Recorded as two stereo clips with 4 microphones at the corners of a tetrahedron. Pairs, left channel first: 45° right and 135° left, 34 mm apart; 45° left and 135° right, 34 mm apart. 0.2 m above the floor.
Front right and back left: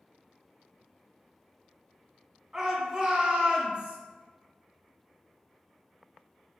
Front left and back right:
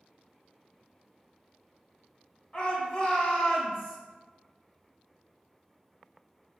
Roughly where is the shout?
Left.